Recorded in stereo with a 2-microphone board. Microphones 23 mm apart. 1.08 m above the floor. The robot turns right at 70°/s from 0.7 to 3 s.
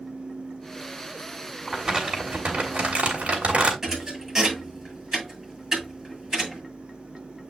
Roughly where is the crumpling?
Behind.